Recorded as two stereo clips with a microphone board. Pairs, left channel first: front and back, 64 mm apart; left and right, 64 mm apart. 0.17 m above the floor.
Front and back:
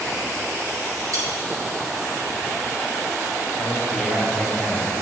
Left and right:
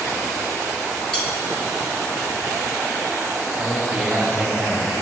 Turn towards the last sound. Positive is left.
turn(degrees=-25)